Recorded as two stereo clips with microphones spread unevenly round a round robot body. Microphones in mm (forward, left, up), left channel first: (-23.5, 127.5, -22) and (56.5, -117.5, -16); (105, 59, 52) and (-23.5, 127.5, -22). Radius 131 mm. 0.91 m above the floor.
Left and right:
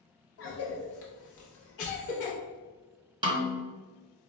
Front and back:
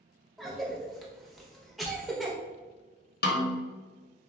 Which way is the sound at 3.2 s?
Straight ahead.